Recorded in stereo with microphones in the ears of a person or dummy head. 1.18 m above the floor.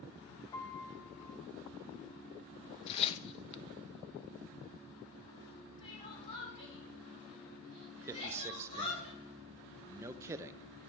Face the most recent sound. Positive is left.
turn(degrees=-15)  # may be behind; listen again after turning